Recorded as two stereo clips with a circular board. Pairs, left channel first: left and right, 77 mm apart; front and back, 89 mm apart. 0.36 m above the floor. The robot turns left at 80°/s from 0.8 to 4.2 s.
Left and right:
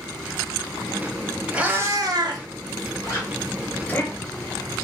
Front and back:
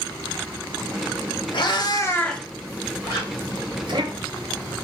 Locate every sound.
1.5 s a cat meowing: 15° right, 0.8 m; by 4.0 s 145° left, 0.8 m
3.0 s a zipper: 45° left, 2.0 m; by 3.3 s 25° left, 2.0 m